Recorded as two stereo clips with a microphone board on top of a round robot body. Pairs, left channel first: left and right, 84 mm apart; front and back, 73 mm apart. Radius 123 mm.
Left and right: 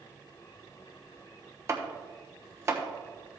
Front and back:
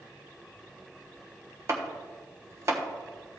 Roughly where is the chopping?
Behind right.